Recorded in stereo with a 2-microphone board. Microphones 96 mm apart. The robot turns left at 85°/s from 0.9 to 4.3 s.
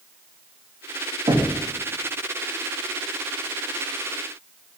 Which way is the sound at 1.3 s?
65° right (ahead or behind).